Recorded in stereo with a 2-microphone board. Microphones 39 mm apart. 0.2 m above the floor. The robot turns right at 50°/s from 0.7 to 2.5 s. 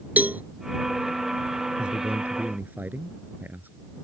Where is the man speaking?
155° right; by 3.7 s 120° right.